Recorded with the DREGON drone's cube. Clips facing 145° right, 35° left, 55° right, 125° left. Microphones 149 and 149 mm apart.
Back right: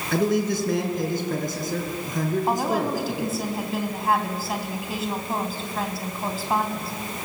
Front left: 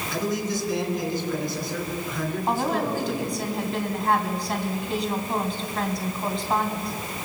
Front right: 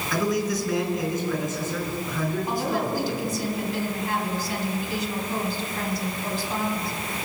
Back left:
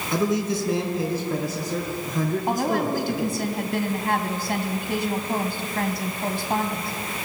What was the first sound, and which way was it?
A man speaking, 170° right.